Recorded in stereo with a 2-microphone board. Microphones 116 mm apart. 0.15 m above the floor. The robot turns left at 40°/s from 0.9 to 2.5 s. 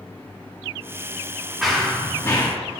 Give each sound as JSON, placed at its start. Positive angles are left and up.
{"t": 1.6, "sound": "running footsteps", "azimuth_deg": -175, "distance_m": 1.6}